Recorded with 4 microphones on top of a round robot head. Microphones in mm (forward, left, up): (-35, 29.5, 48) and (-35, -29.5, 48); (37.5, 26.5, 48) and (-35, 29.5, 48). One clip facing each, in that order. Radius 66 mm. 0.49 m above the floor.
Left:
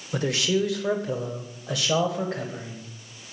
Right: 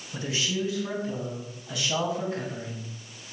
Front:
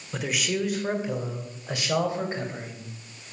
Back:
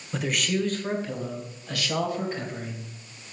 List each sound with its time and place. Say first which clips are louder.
0.1 s a man speaking: left 6 dB, back 1 dB; 85° left, 1.5 m; by 2.9 s 60° left, 2.5 m